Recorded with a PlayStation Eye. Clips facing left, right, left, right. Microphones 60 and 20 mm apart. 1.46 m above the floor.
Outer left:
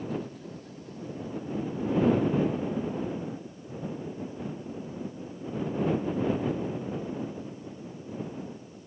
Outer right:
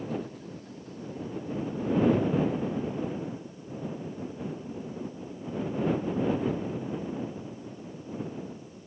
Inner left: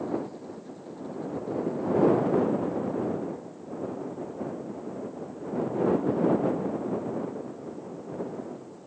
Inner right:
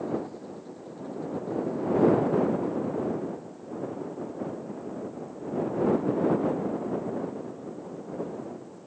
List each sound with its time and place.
Only background noise.